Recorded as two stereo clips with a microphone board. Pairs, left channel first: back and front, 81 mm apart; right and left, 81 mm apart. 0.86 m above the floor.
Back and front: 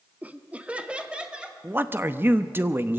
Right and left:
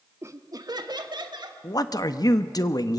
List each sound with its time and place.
0.2 s laughter: 60° left, 0.8 m; by 1.5 s 75° left, 2.5 m
1.6 s a man speaking: 60° right, 0.8 m